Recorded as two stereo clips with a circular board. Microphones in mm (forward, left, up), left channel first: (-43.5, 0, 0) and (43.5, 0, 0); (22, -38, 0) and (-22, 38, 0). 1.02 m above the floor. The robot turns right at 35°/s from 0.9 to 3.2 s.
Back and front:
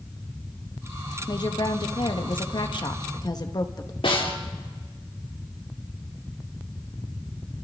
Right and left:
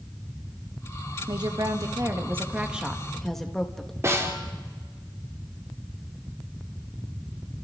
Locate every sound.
1.3 s a woman speaking: 145° left, 1.5 m; by 3.9 s 145° right, 1.5 m
4.0 s a snare drum: 175° left, 2.5 m